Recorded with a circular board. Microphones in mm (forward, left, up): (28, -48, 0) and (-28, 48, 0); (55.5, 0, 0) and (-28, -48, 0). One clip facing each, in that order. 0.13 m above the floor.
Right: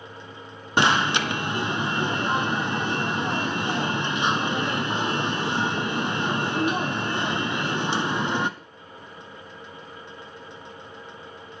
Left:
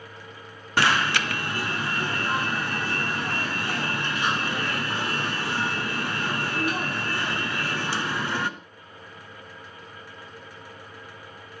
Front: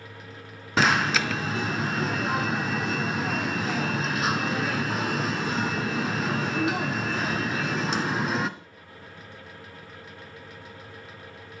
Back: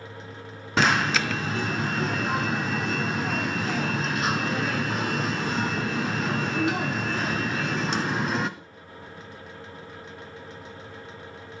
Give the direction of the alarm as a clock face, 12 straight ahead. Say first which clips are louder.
Right 2 dB, even; 2 o'clock.